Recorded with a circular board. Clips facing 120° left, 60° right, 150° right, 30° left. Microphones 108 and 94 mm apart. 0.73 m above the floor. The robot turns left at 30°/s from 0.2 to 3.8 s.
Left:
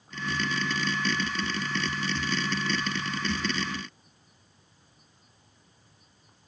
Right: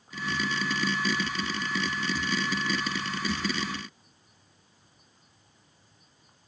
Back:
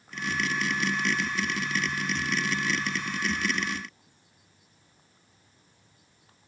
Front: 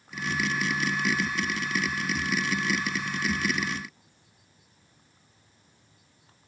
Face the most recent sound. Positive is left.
No sound to turn to.